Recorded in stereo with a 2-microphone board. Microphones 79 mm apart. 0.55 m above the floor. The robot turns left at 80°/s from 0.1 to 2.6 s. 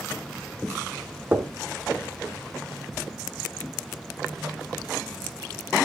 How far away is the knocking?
About 0.9 m.